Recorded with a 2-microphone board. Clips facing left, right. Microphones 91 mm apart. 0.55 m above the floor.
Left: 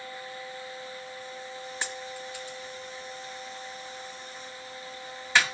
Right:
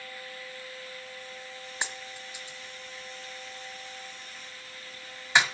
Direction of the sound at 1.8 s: 20° right (ahead or behind).